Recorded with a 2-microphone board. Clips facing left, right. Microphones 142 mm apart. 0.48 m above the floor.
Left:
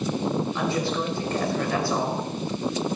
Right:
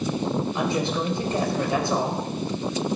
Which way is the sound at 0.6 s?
20° right (ahead or behind).